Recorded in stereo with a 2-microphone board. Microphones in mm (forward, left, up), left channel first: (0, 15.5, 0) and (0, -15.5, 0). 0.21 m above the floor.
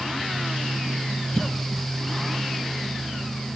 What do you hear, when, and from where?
1.4 s a cough: 20° left (ahead or behind), 1.4 m